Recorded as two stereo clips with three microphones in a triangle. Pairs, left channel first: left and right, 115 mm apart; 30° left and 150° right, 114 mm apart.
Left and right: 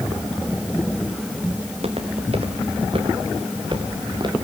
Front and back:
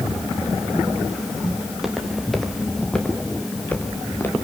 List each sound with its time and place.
1.6 s footsteps: 65° right, 3.5 m; by 4.3 s 40° right, 3.5 m